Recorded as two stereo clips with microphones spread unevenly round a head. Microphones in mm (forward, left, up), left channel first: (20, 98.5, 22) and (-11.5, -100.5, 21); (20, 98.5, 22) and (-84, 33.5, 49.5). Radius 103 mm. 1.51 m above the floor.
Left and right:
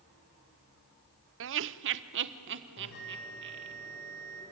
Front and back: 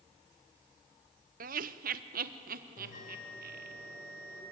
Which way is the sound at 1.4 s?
130° right.